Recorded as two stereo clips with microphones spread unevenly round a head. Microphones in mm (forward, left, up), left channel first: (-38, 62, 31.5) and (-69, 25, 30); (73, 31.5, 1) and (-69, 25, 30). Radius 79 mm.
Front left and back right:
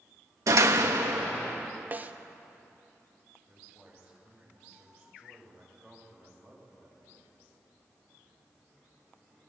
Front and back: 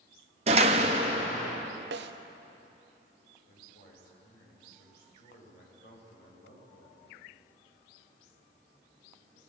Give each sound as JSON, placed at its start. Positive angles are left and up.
{"t": 0.5, "sound": "a door slam", "azimuth_deg": -130, "distance_m": 1.5}
{"t": 1.9, "sound": "a snare drum", "azimuth_deg": 175, "distance_m": 1.2}
{"t": 3.5, "sound": "a man speaking", "azimuth_deg": -35, "distance_m": 8.5}